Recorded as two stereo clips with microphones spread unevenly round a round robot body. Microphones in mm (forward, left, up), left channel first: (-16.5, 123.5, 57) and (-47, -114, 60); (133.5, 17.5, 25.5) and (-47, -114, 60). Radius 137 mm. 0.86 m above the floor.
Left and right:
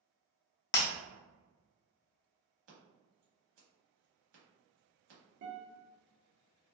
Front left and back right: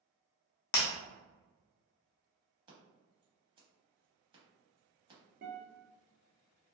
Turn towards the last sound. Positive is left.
turn(degrees=-100)